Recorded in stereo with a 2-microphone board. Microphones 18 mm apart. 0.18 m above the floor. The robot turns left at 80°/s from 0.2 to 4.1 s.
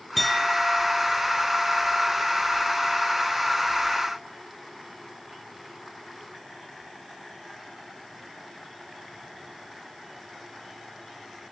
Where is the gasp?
I don't hear a gasp.